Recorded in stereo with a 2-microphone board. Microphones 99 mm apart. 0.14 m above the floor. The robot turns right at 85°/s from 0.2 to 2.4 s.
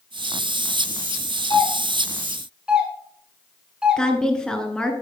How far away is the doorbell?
About 3 m.